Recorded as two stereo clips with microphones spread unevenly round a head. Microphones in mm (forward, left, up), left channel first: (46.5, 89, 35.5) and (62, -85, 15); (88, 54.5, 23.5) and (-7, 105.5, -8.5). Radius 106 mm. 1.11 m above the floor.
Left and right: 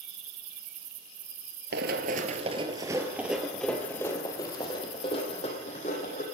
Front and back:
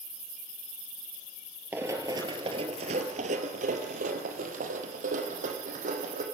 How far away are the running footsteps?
About 1.5 m.